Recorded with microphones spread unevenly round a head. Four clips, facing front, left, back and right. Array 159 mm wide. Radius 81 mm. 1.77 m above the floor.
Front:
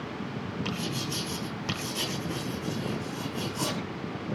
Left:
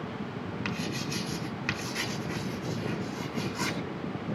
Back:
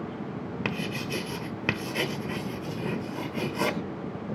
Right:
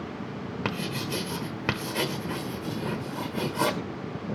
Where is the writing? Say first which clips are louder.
Right 4 dB, back 4 dB; 125° right, 0.9 m.